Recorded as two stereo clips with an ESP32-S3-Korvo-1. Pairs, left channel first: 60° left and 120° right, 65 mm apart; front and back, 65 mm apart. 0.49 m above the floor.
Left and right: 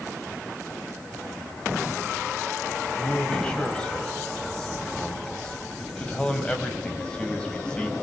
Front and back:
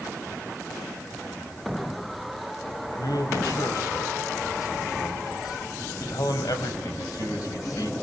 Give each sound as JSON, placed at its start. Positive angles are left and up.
{"t": 3.0, "sound": "a man speaking", "azimuth_deg": -15, "distance_m": 3.5}